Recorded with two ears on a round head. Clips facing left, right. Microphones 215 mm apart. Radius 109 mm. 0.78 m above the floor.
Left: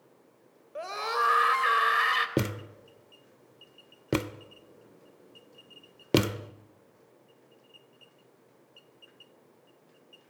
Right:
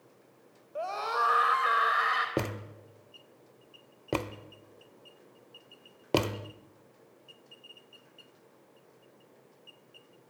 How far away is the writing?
I don't hear writing.